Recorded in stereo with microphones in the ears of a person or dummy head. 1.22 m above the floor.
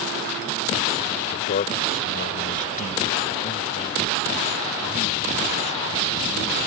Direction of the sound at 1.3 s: 45° left (ahead or behind).